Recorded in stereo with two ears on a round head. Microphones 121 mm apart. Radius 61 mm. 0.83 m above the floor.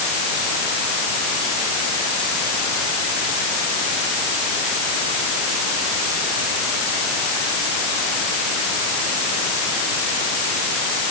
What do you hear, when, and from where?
Only background noise.